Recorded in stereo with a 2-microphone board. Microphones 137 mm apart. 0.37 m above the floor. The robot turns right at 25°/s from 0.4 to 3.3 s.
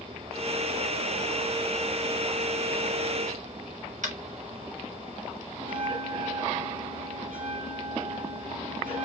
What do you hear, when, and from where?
4.0 s tapping: 65° right (ahead or behind), 2 m
5.6 s a bell: 75° right (ahead or behind), 1.5 m